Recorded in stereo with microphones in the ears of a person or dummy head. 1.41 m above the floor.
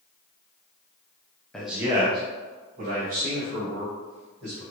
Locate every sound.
1.5 s a man speaking: 5° left (ahead or behind), 0.6 m; by 4.6 s 65° right (ahead or behind), 2.5 m